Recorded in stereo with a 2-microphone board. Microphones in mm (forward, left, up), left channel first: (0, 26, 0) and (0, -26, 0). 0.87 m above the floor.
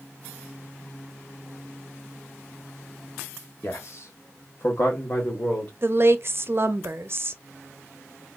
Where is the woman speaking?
50° right (ahead or behind), 0.6 m.